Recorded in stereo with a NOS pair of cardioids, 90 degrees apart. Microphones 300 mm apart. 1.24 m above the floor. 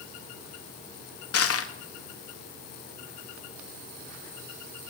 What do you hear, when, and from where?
1.3 s crushing: 50° left, 2 m